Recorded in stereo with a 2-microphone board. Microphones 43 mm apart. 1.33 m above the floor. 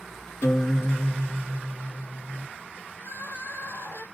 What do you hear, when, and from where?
0.4 s a guitar: 90° left, 1.1 m
3.0 s crying: 55° left (ahead or behind), 0.6 m